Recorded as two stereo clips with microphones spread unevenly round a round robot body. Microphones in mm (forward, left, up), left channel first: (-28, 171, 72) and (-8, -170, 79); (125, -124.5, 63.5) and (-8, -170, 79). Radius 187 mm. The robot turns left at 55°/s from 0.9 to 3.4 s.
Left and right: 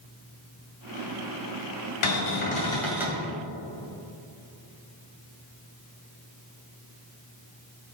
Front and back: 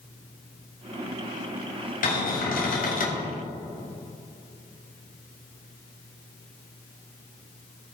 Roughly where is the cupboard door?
Ahead left.